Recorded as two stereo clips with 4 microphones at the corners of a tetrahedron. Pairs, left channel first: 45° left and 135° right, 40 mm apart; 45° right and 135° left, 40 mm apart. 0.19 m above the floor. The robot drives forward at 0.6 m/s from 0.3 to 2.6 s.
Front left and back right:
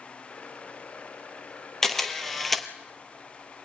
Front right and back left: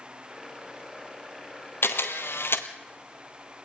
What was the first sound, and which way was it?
A camera shutter, 35° right.